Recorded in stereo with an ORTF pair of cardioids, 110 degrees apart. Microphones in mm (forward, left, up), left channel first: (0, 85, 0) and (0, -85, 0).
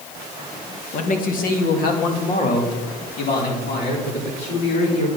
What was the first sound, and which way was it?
A man speaking, 50° left.